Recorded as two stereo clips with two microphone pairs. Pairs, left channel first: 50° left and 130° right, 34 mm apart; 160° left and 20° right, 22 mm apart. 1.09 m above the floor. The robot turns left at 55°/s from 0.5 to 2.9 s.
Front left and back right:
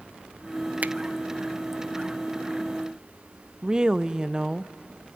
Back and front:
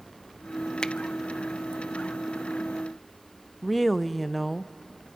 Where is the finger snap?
155° right, 0.5 m; by 0.9 s 160° right, 0.5 m.